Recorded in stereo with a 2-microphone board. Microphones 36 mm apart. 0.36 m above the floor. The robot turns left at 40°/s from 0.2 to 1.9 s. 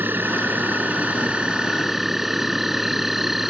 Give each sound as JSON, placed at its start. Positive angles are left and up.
{"t": 0.0, "sound": "an insect", "azimuth_deg": -100}